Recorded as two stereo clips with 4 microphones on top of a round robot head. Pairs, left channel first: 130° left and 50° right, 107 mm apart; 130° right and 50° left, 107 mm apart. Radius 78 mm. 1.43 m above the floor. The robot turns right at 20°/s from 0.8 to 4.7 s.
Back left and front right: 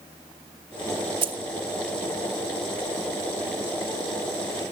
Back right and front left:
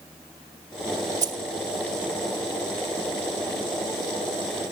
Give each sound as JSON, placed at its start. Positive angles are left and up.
{"t": 1.2, "sound": "keys jangling", "azimuth_deg": -10, "distance_m": 1.0}